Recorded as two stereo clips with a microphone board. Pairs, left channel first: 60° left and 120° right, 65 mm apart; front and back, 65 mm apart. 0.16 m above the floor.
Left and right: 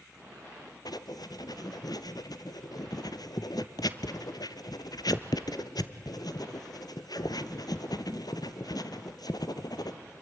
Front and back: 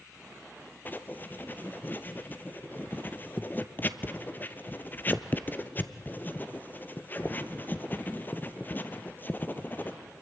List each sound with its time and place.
0.8 s writing: 60° left, 0.9 m